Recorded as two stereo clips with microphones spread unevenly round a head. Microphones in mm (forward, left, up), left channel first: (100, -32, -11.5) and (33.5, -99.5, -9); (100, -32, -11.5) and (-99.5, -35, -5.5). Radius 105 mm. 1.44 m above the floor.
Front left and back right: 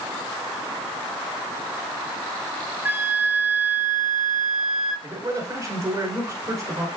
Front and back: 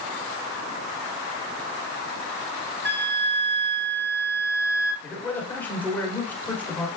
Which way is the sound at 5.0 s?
80° right.